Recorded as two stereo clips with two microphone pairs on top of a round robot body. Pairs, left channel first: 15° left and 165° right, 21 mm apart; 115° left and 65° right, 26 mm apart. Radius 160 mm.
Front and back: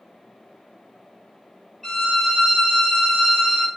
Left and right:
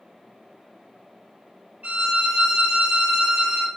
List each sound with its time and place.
1.8 s a violin: 55° right, 0.9 m